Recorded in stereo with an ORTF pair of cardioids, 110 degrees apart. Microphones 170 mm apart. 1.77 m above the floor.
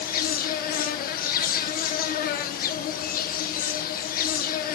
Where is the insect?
60° left, 1.5 m.